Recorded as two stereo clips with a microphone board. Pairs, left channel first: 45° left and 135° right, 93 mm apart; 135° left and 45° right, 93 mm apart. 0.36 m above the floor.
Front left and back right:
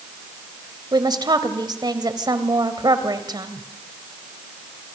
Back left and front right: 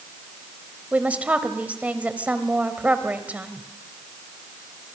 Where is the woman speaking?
115° right, 1.8 m.